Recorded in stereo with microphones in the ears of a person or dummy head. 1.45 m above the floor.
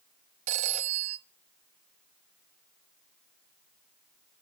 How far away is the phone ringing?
About 0.5 m.